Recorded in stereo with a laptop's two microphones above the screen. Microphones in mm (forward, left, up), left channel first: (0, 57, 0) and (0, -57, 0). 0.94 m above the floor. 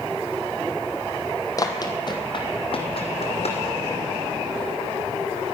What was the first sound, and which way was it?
Running footsteps, 30° left (ahead or behind).